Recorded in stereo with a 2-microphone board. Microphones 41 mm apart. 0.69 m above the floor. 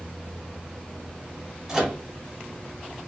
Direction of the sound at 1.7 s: 5° right (ahead or behind).